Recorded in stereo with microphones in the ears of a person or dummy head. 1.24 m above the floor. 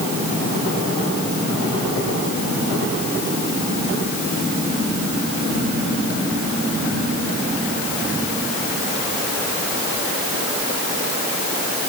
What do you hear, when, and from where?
Only background noise.